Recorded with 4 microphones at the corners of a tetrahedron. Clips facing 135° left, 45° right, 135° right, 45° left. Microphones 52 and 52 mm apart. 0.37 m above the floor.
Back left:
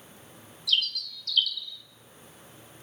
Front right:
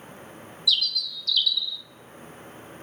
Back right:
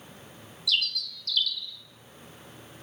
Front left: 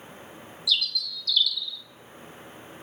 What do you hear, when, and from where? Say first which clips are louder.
0.7 s a bird: front right 2 dB, front left 1 dB; 175° right, 0.6 m